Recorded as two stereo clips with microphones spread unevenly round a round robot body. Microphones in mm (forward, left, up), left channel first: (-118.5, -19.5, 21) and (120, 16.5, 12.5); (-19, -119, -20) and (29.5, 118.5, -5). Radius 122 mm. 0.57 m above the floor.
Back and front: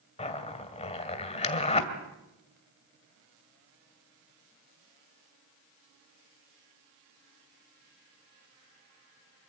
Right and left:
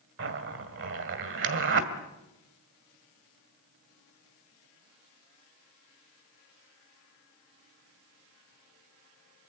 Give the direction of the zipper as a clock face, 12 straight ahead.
8 o'clock.